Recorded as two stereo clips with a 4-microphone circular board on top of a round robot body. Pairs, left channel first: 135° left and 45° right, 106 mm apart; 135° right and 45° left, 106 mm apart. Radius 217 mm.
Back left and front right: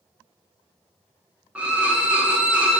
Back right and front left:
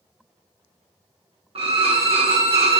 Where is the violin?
30° left, 1.0 m.